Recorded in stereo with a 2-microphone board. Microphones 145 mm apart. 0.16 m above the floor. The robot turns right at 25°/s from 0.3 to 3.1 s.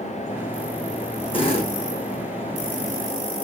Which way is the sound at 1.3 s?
40° left (ahead or behind).